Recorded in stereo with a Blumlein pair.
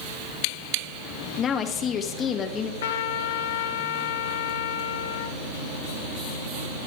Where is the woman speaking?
25° left, 1.9 m.